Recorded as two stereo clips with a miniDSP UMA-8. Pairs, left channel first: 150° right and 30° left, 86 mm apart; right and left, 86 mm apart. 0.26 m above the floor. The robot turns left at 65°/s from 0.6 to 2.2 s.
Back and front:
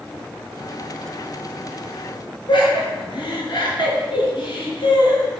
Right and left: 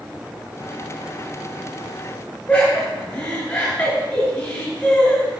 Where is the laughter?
160° right, 4 m.